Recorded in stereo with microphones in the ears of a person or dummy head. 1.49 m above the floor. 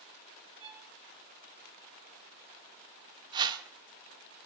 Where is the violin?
30° right (ahead or behind), 3 m.